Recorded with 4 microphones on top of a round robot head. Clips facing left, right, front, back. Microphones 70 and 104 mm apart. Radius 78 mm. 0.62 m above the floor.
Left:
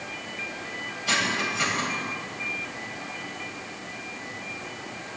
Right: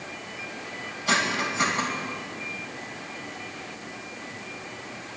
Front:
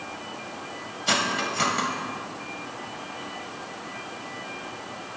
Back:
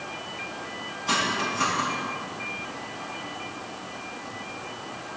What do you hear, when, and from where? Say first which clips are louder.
1.1 s cutlery clinking: right 2 dB, even; 15° right, 2.5 m